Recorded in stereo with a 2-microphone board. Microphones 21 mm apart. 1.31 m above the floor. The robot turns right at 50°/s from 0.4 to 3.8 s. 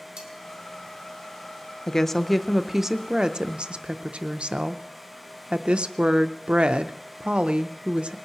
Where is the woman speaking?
150° left, 0.5 m; by 8.2 s 115° right, 0.5 m.